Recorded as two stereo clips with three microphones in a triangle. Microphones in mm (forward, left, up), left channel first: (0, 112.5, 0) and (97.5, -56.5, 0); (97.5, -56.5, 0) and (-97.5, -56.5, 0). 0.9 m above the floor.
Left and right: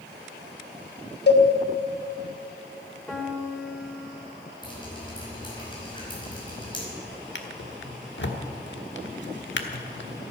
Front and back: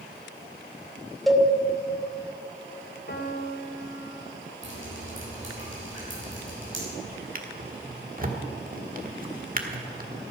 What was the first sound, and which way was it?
A cowbell, 90° left.